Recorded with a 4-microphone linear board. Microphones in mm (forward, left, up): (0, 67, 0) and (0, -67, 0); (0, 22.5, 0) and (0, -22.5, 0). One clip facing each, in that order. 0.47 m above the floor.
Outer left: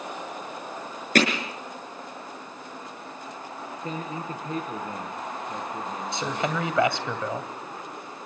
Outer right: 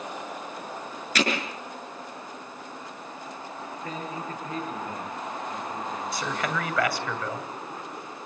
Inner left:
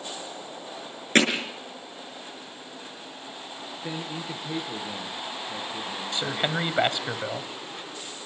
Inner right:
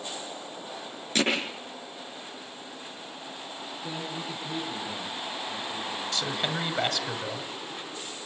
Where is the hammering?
50° left (ahead or behind), 6.5 m.